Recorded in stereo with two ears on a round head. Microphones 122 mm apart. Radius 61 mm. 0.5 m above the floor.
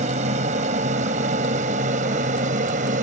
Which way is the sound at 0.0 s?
55° right (ahead or behind).